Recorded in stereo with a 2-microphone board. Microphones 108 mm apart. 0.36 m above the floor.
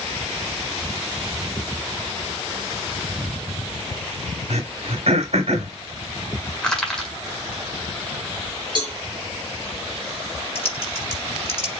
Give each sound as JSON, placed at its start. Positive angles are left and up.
{"t": 4.5, "sound": "throat clearing", "side_deg": -70, "distance_m": 1.2}
{"t": 6.6, "sound": "crushing", "side_deg": 5, "distance_m": 1.5}
{"t": 8.8, "sound": "a cowbell", "side_deg": -45, "distance_m": 1.6}
{"t": 10.6, "sound": "typing on a keyboard", "side_deg": 55, "distance_m": 1.7}